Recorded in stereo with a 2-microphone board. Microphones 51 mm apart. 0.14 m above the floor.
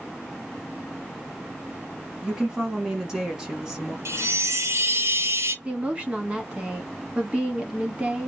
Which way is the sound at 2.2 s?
10° right (ahead or behind).